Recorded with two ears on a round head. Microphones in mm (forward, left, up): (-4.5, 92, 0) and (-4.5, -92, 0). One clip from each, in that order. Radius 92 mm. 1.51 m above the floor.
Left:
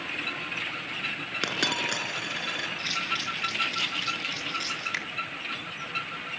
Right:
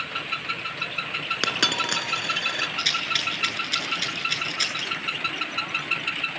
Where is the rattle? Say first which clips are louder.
Right 7 dB; 50° right (ahead or behind), 8.5 m.